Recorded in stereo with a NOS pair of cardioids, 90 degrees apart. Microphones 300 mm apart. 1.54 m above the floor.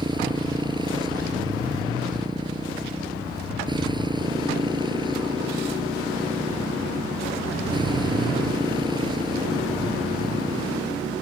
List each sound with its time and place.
0.0 s a motorcycle: 15° right